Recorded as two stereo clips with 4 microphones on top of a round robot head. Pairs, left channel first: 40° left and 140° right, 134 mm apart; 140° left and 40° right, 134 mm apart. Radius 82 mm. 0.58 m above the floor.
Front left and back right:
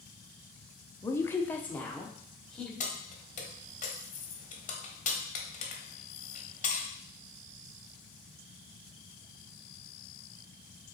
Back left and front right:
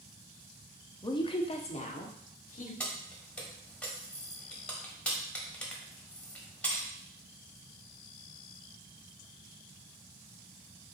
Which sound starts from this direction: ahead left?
Keys jangling, at 2.8 s.